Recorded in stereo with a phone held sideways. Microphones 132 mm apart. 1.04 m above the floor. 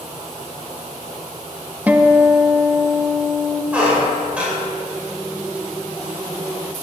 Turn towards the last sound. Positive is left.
turn(degrees=-10)  # may be behind; listen again after turning